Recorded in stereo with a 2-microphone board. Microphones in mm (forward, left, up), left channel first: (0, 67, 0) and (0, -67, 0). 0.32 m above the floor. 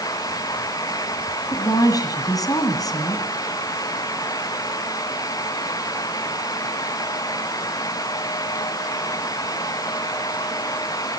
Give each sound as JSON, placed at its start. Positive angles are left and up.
{"t": 1.5, "sound": "a woman speaking", "side_deg": 25, "distance_m": 1.9}